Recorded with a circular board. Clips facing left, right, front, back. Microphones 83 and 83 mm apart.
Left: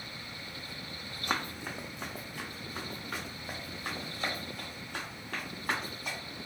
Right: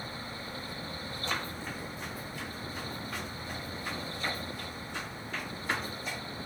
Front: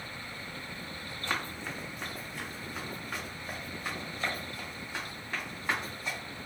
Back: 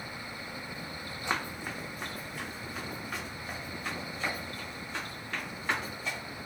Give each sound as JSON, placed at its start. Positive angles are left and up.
{"t": 1.3, "sound": "running footsteps", "azimuth_deg": 110, "distance_m": 0.7}